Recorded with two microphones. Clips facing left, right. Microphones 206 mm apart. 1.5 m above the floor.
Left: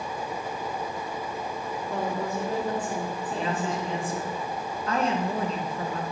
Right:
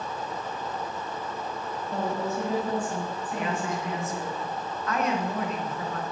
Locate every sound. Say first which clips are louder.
1.9 s a woman speaking: right 1 dB; 75° left (ahead or behind), 4.5 m
3.3 s a woman speaking: left 1 dB; 30° left (ahead or behind), 1.5 m